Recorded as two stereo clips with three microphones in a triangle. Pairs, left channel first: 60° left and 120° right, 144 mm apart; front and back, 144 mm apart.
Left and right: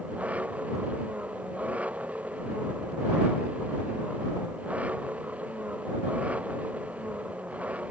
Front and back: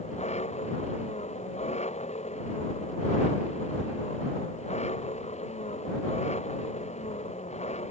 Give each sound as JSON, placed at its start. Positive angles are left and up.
{"t": 0.0, "sound": "an engine running", "azimuth_deg": -40}